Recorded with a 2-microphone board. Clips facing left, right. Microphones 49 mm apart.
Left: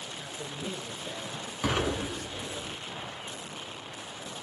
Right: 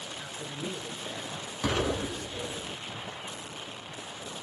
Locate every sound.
0.2 s a man speaking: 30° right (ahead or behind), 1.6 m
1.6 s an explosion: 20° left (ahead or behind), 0.9 m